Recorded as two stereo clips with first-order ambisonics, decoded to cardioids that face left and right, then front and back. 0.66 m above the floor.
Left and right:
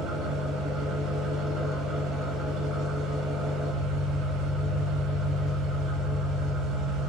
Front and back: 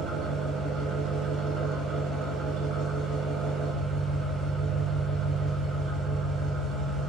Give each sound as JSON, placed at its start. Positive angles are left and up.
{"t": 0.0, "sound": "an engine running", "azimuth_deg": -175, "distance_m": 1.1}